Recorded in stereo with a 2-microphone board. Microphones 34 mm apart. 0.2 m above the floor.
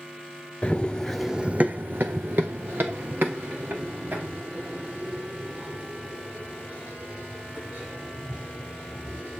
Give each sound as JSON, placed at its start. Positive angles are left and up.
{"t": 0.6, "sound": "running footsteps", "side_deg": 30, "distance_m": 0.8}